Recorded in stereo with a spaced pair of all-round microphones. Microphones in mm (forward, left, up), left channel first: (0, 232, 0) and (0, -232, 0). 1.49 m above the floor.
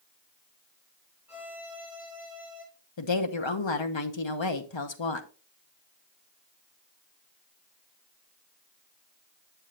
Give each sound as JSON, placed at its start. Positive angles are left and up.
{"t": 1.3, "sound": "a violin", "side_deg": -5, "distance_m": 5.5}
{"t": 3.0, "sound": "a woman speaking", "side_deg": 70, "distance_m": 0.9}